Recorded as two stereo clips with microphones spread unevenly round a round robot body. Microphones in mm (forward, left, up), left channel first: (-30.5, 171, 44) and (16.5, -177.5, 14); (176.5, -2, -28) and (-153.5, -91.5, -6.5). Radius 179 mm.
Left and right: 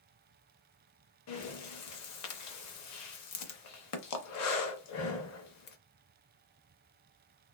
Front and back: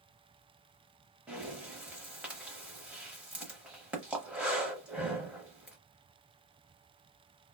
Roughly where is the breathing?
Behind left.